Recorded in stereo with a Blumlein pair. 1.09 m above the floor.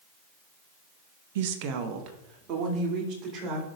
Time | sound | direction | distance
1.4 | a woman speaking | 55° right | 0.7 m